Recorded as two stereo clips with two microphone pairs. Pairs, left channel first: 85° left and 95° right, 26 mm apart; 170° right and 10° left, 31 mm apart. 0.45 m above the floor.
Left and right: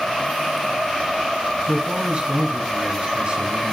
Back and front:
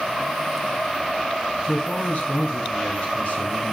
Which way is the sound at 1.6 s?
140° right.